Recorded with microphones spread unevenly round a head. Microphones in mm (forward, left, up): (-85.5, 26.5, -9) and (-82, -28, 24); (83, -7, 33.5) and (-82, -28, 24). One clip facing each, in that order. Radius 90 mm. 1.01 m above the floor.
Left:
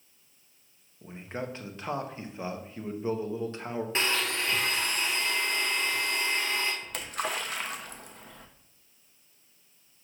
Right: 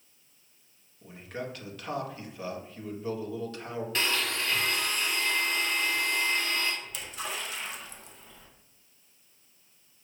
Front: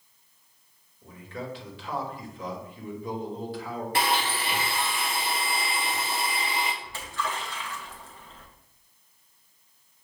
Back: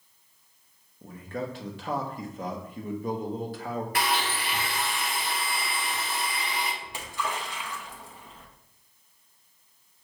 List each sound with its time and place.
1.0 s a man speaking: 140° left, 1.0 m
4.0 s a blender: 70° left, 0.8 m
6.8 s a splash: 110° left, 0.7 m